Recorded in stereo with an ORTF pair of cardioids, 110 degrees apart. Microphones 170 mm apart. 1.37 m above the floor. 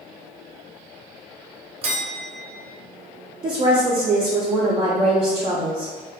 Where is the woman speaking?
30° right, 0.5 m.